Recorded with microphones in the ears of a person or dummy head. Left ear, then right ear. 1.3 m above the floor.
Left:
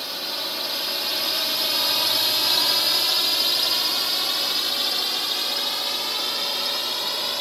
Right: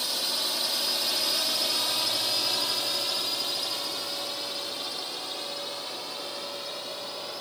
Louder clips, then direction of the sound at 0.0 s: Even; 10° right (ahead or behind).